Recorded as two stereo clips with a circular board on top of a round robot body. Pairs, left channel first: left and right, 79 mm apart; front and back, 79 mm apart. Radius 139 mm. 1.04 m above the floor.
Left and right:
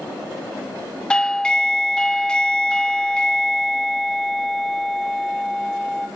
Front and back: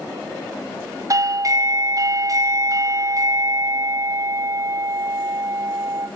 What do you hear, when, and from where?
1.1 s a doorbell: 165° left, 0.8 m